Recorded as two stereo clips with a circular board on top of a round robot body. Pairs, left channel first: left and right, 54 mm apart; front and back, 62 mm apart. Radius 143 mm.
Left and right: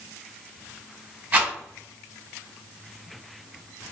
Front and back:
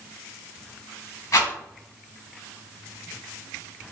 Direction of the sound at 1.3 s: 35° right.